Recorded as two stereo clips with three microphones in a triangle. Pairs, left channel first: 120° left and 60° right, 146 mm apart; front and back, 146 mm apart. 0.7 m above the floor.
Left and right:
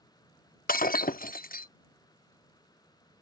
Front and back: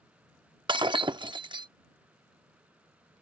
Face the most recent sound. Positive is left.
turn(degrees=125)